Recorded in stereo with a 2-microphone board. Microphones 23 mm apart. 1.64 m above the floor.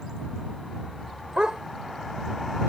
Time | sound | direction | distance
1.4 | a dog barking | 40° right (ahead or behind) | ?